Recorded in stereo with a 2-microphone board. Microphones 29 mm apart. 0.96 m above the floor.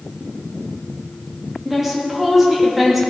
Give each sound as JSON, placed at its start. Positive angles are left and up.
{"t": 1.6, "sound": "a woman speaking", "side_deg": -10, "distance_m": 1.9}